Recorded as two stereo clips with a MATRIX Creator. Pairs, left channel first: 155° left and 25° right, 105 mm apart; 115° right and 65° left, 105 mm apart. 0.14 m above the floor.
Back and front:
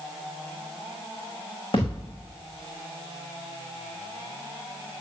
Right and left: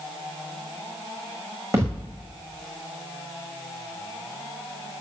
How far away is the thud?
About 5 m.